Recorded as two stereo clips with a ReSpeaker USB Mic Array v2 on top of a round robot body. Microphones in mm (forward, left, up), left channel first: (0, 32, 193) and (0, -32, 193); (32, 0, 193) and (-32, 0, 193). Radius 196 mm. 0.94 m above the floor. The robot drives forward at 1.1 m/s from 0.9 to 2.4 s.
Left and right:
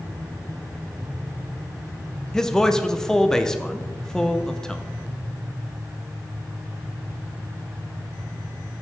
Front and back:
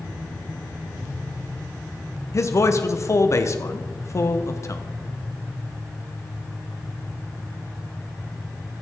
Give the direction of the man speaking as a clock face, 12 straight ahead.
12 o'clock.